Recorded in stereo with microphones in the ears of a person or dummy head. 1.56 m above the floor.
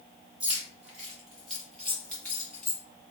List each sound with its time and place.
0.4 s keys jangling: 10° right (ahead or behind), 1.5 m; by 2.8 s 15° left (ahead or behind), 2.5 m